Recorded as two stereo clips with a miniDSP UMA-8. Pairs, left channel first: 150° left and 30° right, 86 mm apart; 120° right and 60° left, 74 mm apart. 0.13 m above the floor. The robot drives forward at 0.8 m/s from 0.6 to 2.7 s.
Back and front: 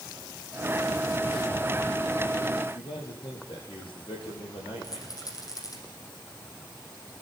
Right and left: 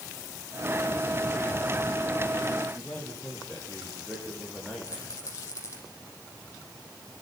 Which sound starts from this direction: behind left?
A man speaking, at 2.7 s.